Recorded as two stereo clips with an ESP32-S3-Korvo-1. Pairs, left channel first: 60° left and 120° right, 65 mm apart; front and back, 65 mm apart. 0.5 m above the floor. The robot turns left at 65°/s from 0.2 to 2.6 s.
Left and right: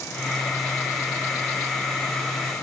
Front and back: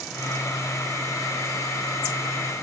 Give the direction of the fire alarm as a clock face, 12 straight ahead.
No fire alarm in this recording.